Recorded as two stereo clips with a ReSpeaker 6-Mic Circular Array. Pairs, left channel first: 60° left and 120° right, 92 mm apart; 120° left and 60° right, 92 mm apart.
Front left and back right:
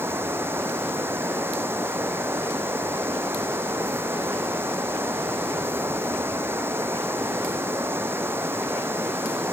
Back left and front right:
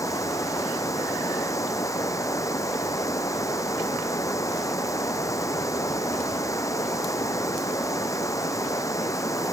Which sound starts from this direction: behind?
Running water, at 0.0 s.